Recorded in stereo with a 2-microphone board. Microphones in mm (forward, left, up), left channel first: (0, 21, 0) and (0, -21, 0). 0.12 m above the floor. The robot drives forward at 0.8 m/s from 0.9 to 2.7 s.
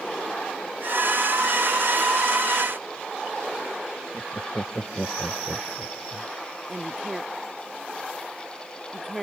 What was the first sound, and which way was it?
Laughter, 50° left (ahead or behind).